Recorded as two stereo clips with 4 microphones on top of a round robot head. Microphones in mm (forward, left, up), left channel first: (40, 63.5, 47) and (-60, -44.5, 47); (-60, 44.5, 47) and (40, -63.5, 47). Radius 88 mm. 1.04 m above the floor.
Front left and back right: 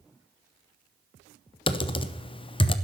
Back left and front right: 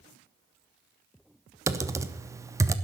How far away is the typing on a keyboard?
About 0.9 m.